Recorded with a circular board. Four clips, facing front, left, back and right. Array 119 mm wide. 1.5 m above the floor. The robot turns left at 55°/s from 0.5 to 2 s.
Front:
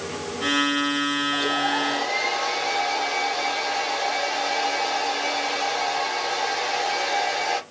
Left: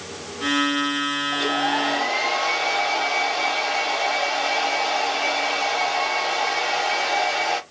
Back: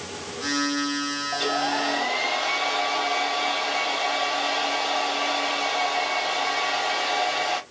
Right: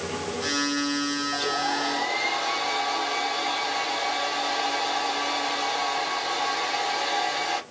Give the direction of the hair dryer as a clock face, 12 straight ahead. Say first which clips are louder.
Left 6 dB, back 3 dB; 7 o'clock.